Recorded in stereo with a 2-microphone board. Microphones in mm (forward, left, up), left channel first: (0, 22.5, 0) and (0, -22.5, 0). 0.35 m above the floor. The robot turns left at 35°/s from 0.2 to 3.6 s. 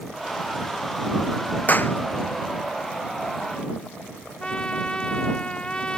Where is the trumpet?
25° left (ahead or behind).